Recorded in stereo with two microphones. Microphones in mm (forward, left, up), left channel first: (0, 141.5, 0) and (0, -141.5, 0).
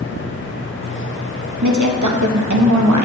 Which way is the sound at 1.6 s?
90° right.